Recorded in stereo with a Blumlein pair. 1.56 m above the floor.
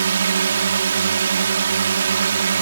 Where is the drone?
65° right.